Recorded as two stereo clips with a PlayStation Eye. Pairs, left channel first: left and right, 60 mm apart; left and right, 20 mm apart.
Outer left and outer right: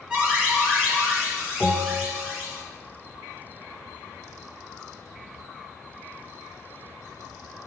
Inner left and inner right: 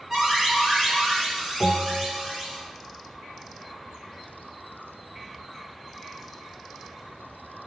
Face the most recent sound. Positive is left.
turn(degrees=-15)  # may be behind; listen again after turning